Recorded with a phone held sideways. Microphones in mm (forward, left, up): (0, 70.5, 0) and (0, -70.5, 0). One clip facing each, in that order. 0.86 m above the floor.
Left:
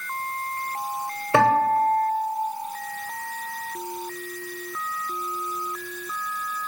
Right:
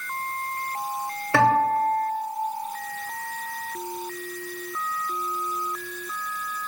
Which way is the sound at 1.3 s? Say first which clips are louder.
Left 1 dB; 20° left (ahead or behind).